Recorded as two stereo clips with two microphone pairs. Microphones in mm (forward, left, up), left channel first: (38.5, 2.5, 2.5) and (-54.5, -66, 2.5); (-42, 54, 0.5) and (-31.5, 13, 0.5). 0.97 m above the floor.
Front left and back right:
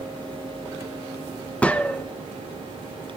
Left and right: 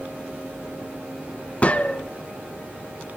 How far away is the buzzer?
No buzzer in this recording.